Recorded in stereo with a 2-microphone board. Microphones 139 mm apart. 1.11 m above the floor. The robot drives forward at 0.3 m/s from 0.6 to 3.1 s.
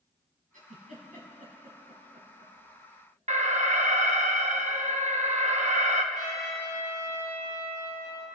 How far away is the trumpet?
About 5 m.